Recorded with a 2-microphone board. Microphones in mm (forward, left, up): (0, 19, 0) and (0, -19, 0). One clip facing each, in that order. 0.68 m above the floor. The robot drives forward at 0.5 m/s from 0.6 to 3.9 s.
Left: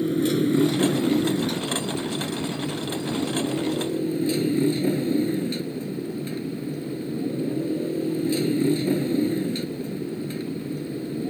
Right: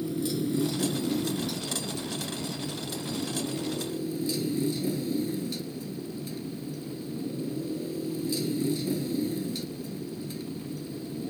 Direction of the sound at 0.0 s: 55° left (ahead or behind).